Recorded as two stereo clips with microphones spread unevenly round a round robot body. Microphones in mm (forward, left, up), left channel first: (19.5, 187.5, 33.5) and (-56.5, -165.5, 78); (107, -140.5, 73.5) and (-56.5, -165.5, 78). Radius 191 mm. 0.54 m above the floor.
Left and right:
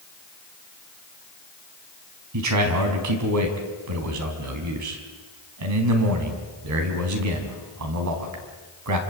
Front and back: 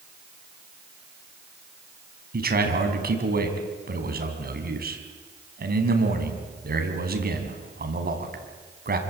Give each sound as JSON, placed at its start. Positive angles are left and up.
{"t": 2.3, "sound": "a man speaking", "azimuth_deg": -145, "distance_m": 4.5}